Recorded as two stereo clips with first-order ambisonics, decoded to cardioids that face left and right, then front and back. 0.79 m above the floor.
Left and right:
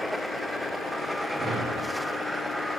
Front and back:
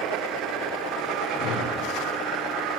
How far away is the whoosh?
About 3 m.